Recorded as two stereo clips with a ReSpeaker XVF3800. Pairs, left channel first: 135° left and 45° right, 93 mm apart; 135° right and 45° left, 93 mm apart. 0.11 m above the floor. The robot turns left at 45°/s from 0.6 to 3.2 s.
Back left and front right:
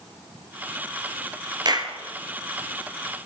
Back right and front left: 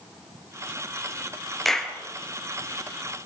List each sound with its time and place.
1.6 s a clap: 45° right, 2 m; by 1.9 s 60° right, 2 m